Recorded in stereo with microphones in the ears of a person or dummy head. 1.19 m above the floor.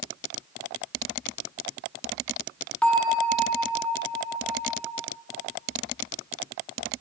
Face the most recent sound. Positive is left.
turn(degrees=5)  # may be behind; listen again after turning